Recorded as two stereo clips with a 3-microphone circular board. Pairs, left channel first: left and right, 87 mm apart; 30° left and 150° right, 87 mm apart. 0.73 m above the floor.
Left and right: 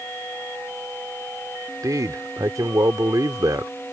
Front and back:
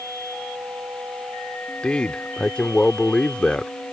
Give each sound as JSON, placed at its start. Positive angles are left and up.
{"t": 1.8, "sound": "a man speaking", "azimuth_deg": -50}